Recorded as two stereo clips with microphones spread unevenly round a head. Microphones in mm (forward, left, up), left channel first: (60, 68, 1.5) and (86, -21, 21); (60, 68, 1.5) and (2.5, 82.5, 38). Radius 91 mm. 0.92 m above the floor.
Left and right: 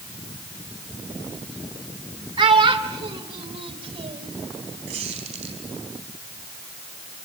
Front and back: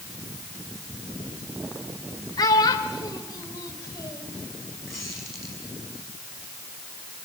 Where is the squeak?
105° right, 4 m.